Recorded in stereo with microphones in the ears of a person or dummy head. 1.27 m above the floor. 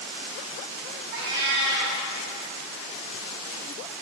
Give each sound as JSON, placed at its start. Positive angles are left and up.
{"t": 1.1, "sound": "a cat meowing", "side_deg": -60, "distance_m": 1.3}